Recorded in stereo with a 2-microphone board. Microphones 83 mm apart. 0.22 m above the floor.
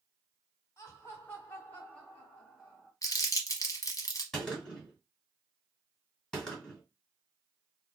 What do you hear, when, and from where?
0.8 s laughter: 35° left (ahead or behind), 1.5 m; by 2.9 s 5° right (ahead or behind), 1.4 m
3.0 s crumpling: 45° left (ahead or behind), 0.8 m
4.3 s a gunshot: 5° left (ahead or behind), 1.9 m